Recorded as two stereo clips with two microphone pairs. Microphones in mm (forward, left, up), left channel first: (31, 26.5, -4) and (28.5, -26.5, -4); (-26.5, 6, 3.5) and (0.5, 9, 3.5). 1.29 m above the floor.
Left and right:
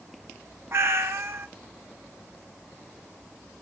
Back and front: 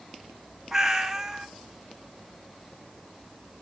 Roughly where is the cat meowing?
Right.